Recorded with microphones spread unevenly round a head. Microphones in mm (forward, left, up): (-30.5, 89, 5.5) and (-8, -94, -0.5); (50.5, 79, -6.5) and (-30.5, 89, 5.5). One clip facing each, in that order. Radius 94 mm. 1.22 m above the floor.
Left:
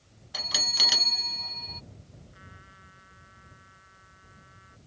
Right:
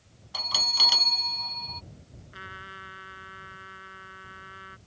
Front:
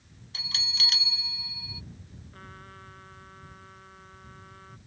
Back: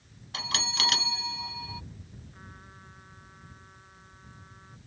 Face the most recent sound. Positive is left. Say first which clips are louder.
# right 7 dB, front 7 dB
turn(degrees=-75)